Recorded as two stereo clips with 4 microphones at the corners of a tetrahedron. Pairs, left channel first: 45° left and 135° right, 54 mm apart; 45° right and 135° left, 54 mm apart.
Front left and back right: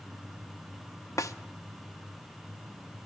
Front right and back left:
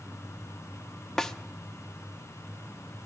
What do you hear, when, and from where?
1.2 s a snare drum: 35° left, 0.5 m